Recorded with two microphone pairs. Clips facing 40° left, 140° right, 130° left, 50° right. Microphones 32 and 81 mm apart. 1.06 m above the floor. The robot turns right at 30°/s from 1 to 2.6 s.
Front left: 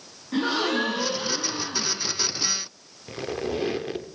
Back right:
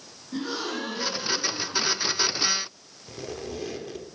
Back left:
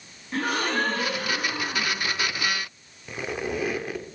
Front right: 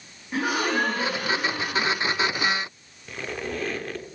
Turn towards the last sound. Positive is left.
turn(degrees=60)